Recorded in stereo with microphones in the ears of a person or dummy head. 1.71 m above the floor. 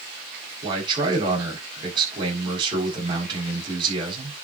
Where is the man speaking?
30° right (ahead or behind), 6.5 m.